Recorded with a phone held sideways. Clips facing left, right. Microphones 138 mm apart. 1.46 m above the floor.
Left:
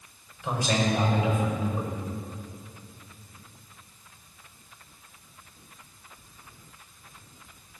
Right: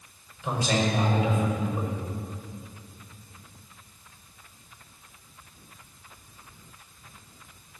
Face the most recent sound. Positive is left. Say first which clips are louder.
# even
turn(degrees=-25)  # may be behind; listen again after turning